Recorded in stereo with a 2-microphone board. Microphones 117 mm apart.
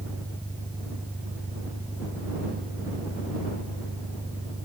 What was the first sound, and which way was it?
An engine running, 15° right (ahead or behind).